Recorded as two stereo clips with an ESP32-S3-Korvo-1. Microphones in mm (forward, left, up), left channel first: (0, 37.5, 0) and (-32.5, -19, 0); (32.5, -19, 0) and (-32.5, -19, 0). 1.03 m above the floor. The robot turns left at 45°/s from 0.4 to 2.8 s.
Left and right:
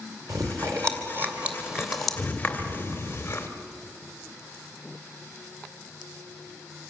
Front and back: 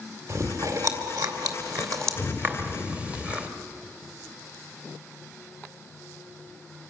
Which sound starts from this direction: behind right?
Chewing, at 0.3 s.